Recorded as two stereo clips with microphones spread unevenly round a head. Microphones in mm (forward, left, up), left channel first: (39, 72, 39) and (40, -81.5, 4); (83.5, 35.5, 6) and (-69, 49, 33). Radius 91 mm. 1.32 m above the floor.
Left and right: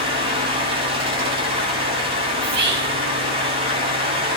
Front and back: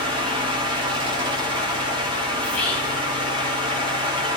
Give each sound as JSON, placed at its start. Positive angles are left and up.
{"t": 0.0, "sound": "a fan", "azimuth_deg": -120, "distance_m": 0.8}
{"t": 2.4, "sound": "whispering", "azimuth_deg": -90, "distance_m": 0.7}